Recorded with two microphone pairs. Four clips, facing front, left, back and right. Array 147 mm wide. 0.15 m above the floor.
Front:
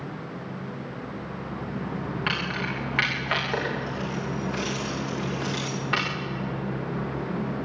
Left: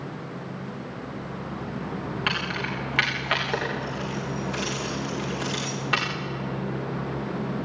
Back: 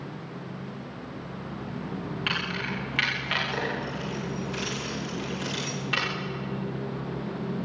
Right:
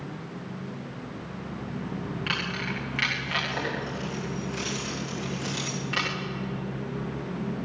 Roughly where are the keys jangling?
Ahead left.